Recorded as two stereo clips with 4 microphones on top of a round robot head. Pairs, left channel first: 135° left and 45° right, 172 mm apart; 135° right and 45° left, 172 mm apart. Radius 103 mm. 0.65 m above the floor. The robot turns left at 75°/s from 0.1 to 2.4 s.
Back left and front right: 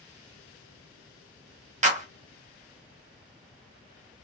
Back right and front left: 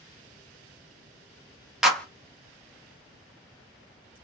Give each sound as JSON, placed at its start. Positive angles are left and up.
{"t": 1.8, "sound": "a clap", "azimuth_deg": -45, "distance_m": 0.8}